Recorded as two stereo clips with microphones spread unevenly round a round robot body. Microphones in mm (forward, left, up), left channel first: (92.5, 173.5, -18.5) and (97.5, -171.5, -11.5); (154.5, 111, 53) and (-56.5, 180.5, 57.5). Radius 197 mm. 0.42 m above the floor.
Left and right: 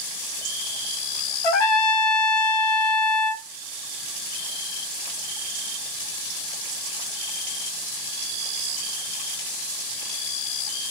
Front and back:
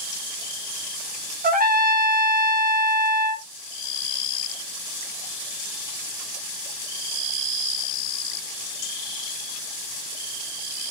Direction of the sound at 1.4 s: 105° left.